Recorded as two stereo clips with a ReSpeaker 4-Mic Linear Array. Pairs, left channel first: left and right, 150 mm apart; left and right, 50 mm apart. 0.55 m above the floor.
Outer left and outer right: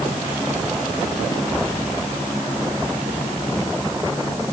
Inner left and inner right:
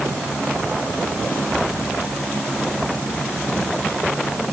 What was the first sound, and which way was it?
Only background noise.